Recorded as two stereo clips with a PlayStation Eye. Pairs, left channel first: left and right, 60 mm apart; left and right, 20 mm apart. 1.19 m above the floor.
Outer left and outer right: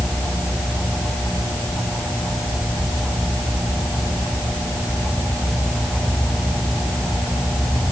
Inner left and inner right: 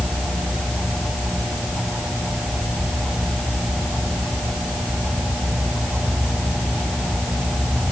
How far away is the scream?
I don't hear a scream.